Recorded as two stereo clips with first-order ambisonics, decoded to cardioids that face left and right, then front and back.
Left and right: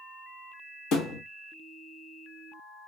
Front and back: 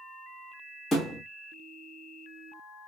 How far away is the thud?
About 1.1 m.